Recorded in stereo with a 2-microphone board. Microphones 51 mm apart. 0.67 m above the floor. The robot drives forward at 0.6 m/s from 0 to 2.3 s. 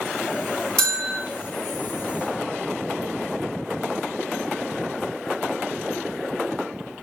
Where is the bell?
15° left (ahead or behind), 1.0 m.